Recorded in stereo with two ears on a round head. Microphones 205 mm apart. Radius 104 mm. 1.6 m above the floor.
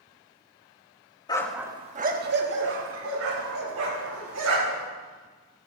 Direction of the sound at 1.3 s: 20° left (ahead or behind).